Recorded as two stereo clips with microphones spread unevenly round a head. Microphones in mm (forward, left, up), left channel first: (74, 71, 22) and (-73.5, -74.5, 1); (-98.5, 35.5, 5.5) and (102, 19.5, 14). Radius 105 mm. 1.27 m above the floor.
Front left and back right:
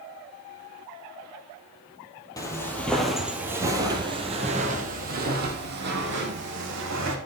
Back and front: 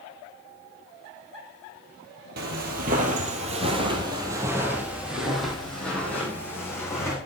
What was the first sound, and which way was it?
Footsteps, 20° right.